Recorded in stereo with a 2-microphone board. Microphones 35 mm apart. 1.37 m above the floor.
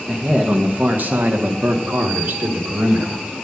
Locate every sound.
0.1 s a man speaking: 25° right (ahead or behind), 1.0 m; by 3.2 s 75° right (ahead or behind), 1.7 m